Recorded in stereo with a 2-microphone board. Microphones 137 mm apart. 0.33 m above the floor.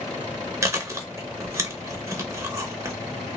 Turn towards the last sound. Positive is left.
turn(degrees=-20)  # may be behind; listen again after turning